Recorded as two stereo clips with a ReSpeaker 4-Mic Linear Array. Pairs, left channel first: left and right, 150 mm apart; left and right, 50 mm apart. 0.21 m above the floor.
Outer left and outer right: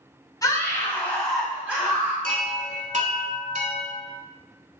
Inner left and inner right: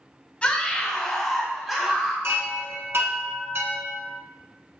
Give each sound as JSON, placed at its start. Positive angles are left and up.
{"t": 0.4, "sound": "a scream", "side_deg": 25, "distance_m": 1.1}
{"t": 2.2, "sound": "a chime", "side_deg": -60, "distance_m": 0.8}